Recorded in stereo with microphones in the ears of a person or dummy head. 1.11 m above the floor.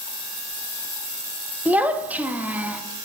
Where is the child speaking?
10° right (ahead or behind), 1.1 m.